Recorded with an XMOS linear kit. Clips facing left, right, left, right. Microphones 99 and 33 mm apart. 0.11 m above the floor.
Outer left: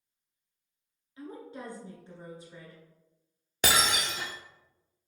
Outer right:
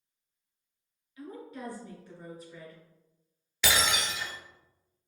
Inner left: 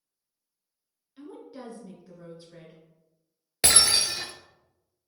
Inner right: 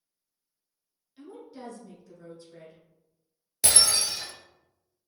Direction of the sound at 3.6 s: 45° left (ahead or behind).